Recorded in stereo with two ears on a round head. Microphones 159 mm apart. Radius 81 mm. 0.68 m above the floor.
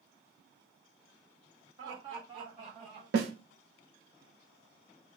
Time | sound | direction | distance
1.8 | laughter | 35° right (ahead or behind) | 2.5 m
3.1 | a snare drum | 70° right (ahead or behind) | 0.8 m